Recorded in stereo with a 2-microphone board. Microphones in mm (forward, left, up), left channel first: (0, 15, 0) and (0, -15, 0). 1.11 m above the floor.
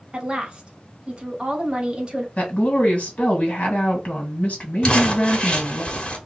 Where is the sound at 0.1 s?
35° right (ahead or behind), 1.3 m.